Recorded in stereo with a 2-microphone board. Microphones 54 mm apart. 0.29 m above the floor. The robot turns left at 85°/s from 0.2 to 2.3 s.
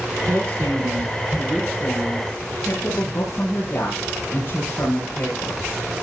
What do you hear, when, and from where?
0.3 s a woman speaking: 55° right, 5 m; by 5.6 s 130° left, 5 m